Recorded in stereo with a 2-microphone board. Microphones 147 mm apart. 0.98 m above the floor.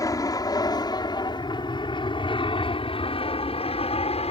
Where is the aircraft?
20° left (ahead or behind); by 4.3 s 40° left (ahead or behind).